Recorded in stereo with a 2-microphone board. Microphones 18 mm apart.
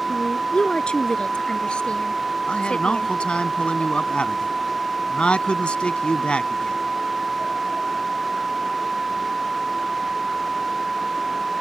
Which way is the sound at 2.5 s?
70° left (ahead or behind).